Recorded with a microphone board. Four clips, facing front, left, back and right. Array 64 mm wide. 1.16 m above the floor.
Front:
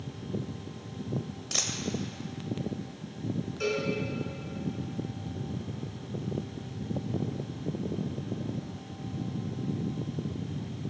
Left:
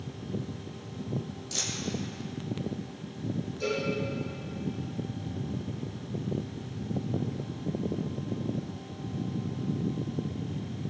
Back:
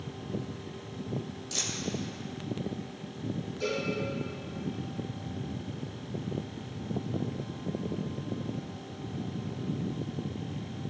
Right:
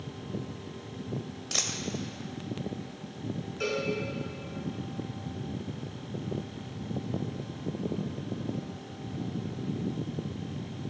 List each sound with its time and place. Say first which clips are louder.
1.5 s a dropped coin: right 2 dB, front 2 dB; 50° right, 1.8 m
3.6 s a cowbell: even, front 2 dB; 55° right, 5.5 m